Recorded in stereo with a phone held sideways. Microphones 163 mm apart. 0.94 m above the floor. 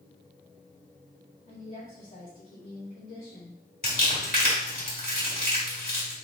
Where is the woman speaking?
60° left (ahead or behind), 2.0 m.